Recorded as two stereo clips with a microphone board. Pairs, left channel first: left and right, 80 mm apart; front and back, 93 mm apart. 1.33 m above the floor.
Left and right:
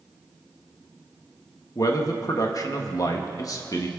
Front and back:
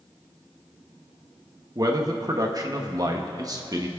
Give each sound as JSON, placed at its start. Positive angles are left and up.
{"t": 1.8, "sound": "a man speaking", "azimuth_deg": 130, "distance_m": 1.5}